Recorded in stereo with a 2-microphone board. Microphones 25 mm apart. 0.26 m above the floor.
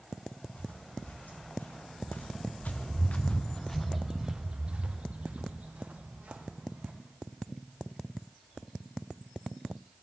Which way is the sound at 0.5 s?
85° left.